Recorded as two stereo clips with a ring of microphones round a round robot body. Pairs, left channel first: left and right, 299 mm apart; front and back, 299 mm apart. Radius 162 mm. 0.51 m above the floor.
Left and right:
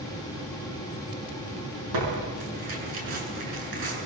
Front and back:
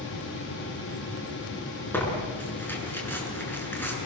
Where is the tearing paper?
85° right, 7 m.